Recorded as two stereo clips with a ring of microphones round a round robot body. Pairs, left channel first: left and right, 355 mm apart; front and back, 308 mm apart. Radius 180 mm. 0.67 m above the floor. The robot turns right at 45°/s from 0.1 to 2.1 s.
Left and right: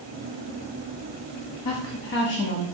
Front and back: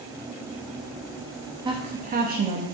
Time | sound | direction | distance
1.6 | a woman speaking | 110° left | 0.9 m